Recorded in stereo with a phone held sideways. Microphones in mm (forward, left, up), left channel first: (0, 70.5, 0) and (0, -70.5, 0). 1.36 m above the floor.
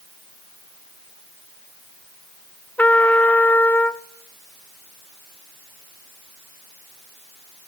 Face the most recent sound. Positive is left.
turn(degrees=10)  # may be behind; listen again after turning